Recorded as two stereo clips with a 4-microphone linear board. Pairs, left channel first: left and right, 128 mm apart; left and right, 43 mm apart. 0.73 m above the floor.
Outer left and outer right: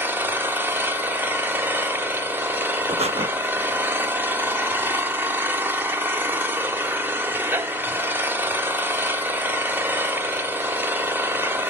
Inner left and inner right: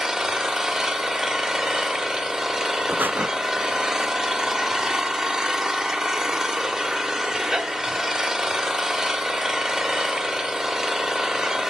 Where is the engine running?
15° right (ahead or behind), 1.1 m.